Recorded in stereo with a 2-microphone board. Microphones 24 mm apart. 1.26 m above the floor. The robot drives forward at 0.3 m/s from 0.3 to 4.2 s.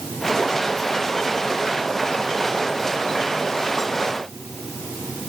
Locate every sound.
Only background noise.